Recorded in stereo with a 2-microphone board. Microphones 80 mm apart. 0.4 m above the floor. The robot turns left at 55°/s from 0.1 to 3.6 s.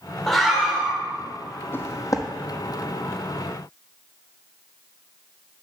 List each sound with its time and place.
0.3 s a scream: 5° left, 1.5 m; by 1.0 s 35° right, 1.5 m
1.7 s footsteps: 30° left (ahead or behind), 0.8 m; by 2.3 s 55° left (ahead or behind), 0.8 m